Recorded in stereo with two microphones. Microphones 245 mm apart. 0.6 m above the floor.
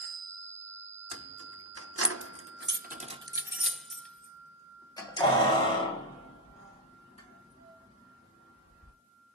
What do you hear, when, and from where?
1.1 s keys jangling: 65° right (ahead or behind), 1.0 m; by 8.9 s 30° left (ahead or behind), 3.5 m